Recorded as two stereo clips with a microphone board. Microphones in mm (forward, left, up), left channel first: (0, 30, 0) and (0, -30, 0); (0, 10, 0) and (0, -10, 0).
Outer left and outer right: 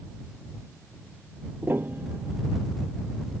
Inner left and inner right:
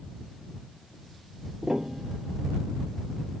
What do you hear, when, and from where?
1.6 s a piano: 40° right (ahead or behind)